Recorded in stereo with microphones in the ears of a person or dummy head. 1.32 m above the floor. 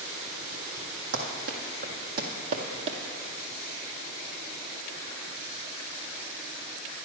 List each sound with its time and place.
1.1 s running footsteps: 45° right (ahead or behind), 2 m; by 3.0 s 30° right (ahead or behind), 1.5 m